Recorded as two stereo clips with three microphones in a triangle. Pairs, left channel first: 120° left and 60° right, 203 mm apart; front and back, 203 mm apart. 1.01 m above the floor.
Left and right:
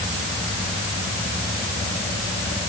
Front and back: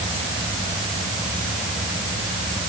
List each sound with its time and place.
Only background noise.